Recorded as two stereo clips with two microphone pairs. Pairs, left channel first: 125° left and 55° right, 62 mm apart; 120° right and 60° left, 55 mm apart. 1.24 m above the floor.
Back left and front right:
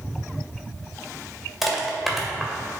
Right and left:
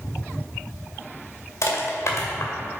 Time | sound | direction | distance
1.6 | crushing | 140° right | 2.0 m